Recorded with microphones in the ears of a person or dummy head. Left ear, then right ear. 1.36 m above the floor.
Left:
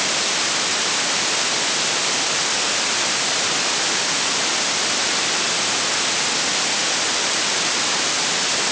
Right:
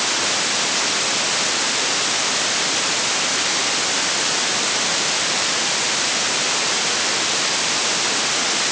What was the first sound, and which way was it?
Only background noise.